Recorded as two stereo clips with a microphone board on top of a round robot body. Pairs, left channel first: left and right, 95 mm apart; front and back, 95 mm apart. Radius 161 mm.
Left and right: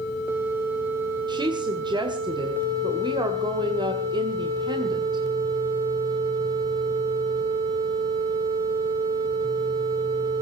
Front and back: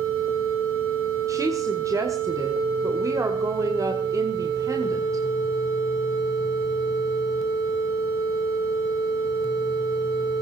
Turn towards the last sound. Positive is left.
turn(degrees=-125)